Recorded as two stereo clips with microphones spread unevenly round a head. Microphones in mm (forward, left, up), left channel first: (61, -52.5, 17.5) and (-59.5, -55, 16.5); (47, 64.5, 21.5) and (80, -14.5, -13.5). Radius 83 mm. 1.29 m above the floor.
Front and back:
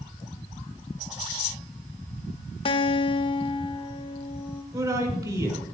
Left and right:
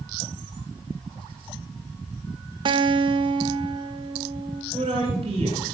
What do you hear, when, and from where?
2.6 s a guitar: 35° right, 0.9 m
4.7 s a man speaking: 120° right, 5 m